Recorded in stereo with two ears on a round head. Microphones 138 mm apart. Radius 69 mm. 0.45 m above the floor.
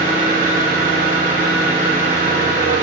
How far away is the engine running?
About 3 m.